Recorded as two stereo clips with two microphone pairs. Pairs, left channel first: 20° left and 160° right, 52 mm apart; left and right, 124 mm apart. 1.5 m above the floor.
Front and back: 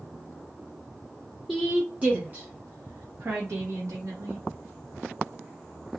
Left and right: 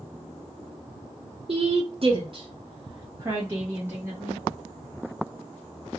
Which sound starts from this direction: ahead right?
A woman speaking, at 1.5 s.